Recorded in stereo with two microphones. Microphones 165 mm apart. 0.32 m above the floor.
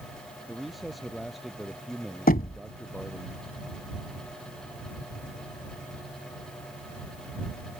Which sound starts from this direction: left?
Knocking, at 2.3 s.